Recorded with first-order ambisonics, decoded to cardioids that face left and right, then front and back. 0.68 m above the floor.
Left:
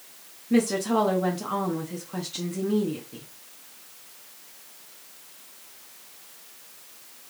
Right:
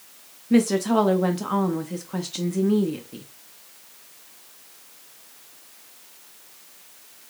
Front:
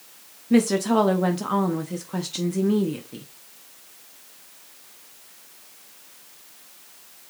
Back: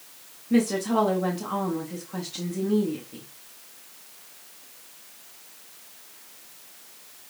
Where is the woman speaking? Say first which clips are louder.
Right 3 dB, front 3 dB; 35° right, 0.5 m.